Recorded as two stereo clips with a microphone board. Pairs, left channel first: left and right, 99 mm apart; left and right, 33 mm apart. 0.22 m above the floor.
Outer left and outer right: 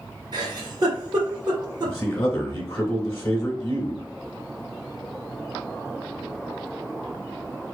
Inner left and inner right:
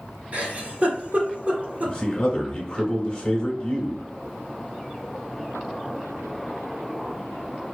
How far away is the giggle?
About 1.5 m.